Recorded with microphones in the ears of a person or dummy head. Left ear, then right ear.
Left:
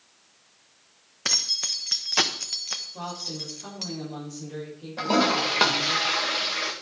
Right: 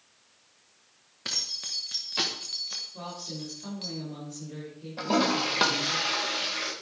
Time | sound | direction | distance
1.2 | keys jangling | 30° left (ahead or behind) | 1.2 m
2.9 | a woman speaking | 20° left (ahead or behind) | 7 m
5.0 | a toilet flushing | 10° left (ahead or behind) | 1.8 m